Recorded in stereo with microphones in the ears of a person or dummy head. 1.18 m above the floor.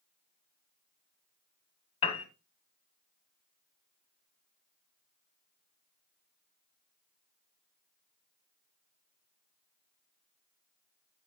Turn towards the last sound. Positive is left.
turn(degrees=30)  # may be behind; listen again after turning